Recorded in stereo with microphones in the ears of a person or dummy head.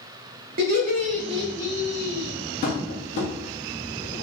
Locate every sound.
0.6 s laughter: 65° right (ahead or behind), 0.8 m; by 2.3 s 15° left (ahead or behind), 0.6 m
2.6 s tapping: 40° left (ahead or behind), 0.9 m